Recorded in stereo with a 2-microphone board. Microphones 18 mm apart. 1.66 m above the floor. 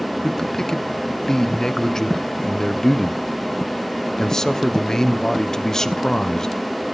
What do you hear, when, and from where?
0.2 s a man speaking: 30° left (ahead or behind), 1.0 m